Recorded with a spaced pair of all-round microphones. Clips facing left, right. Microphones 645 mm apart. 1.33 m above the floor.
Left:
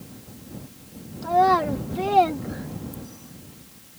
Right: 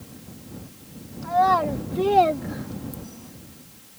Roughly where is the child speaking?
Left.